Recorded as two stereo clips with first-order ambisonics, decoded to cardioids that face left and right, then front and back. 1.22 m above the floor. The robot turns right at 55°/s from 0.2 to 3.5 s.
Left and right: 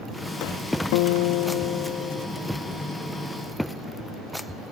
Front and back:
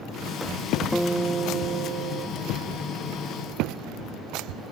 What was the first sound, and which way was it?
A guitar, 85° left.